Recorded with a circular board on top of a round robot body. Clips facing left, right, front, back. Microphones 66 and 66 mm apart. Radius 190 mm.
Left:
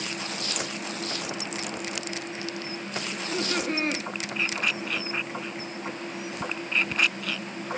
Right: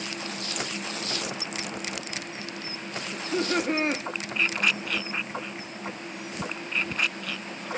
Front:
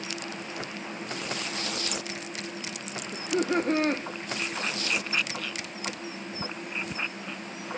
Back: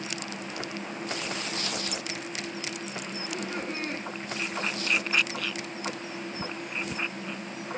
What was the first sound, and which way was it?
Laughter, 20° right.